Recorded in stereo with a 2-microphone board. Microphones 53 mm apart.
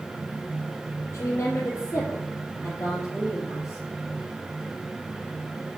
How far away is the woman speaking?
About 3 m.